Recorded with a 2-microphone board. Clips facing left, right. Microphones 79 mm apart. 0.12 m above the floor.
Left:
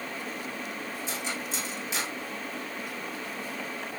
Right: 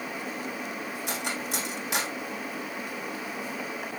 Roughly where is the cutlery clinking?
Right.